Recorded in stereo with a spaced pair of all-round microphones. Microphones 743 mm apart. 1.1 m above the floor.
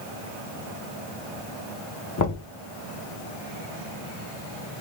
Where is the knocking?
25° left (ahead or behind), 1.1 m.